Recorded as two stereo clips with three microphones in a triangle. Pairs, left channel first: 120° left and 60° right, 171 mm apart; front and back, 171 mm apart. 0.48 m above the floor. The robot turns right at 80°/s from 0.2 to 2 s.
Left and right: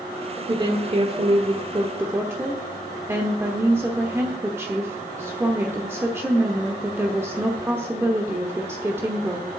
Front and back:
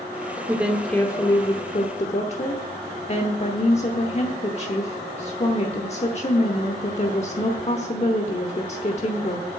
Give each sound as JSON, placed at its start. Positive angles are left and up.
{"t": 0.5, "sound": "a woman speaking", "azimuth_deg": -115, "distance_m": 1.0}